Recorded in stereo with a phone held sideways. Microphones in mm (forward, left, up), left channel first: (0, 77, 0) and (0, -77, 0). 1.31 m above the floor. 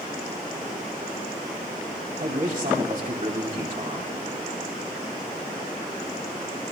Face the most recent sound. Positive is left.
turn(degrees=-60)  # may be behind; listen again after turning